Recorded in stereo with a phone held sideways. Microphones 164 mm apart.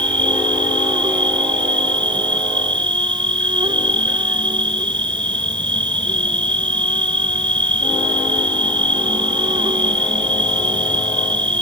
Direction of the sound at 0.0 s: 30° right (ahead or behind).